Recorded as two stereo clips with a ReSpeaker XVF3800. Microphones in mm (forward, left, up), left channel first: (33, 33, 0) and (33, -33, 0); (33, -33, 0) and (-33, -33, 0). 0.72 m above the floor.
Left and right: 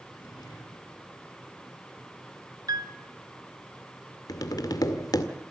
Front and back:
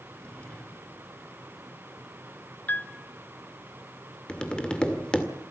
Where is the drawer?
70° left, 6.5 m.